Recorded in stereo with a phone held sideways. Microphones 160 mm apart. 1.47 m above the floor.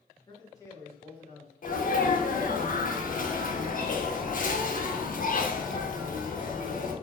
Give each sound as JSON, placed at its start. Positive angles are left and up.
{"t": 0.3, "sound": "a man speaking", "side_deg": 30, "distance_m": 0.8}
{"t": 1.6, "sound": "a sneeze", "side_deg": 60, "distance_m": 0.7}